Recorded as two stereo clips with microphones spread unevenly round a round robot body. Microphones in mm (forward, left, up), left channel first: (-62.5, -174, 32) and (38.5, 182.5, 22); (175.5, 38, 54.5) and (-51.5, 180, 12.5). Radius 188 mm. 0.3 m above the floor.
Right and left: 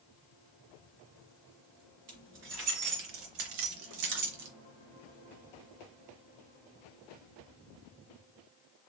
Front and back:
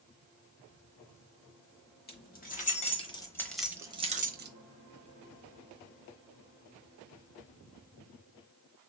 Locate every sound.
2.1 s keys jangling: 25° left, 1.7 m; by 4.5 s 115° left, 1.0 m